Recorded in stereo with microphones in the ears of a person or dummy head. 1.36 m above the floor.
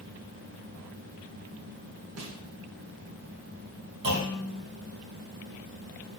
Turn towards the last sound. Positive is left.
turn(degrees=-60)  # may be behind; listen again after turning